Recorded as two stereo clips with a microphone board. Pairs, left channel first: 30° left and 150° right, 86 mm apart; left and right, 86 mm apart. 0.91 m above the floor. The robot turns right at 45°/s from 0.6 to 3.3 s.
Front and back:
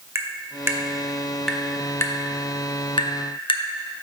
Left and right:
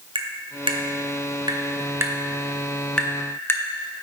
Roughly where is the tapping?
Right.